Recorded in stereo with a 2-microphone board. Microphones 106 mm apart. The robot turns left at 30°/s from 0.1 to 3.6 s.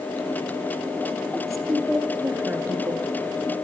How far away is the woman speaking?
About 2.5 m.